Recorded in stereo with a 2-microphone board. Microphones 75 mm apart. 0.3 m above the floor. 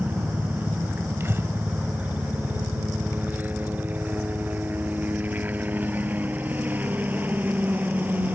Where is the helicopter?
25° right (ahead or behind).